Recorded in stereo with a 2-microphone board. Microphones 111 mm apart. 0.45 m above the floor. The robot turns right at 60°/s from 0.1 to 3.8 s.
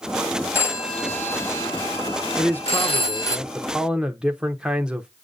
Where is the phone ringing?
20° right (ahead or behind), 2 m; by 3.4 s 30° left (ahead or behind), 2 m.